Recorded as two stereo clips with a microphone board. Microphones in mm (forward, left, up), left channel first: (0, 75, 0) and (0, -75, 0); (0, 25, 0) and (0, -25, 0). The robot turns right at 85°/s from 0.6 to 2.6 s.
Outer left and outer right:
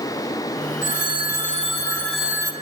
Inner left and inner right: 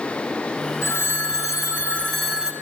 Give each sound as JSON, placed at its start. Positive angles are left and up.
{"t": 0.8, "sound": "a phone ringing", "azimuth_deg": 60, "distance_m": 5.5}